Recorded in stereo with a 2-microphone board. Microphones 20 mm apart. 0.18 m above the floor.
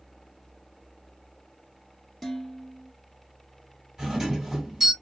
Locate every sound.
2.2 s dishes clattering: 5° right (ahead or behind), 1.1 m
4.0 s a doorbell: 25° right (ahead or behind), 2 m